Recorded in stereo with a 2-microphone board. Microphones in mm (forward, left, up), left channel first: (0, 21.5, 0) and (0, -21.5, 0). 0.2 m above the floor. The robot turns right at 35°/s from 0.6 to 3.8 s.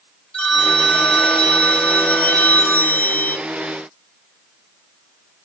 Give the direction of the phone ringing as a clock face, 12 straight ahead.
11 o'clock.